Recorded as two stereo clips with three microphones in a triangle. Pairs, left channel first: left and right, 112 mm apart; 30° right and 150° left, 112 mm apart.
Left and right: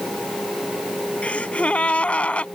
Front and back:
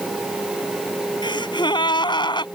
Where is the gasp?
10° left.